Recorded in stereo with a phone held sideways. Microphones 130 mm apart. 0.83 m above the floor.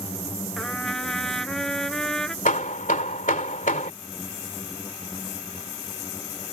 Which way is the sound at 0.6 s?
5° left (ahead or behind).